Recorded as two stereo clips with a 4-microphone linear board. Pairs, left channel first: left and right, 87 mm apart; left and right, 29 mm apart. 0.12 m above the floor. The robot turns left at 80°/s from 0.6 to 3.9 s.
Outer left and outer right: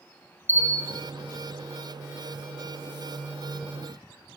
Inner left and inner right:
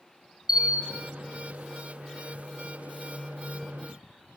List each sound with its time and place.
0.5 s a bell: 25° right, 1.5 m; by 1.0 s 55° right, 1.5 m